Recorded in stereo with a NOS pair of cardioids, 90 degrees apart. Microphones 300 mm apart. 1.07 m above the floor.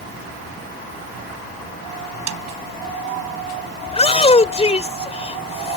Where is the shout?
20° left.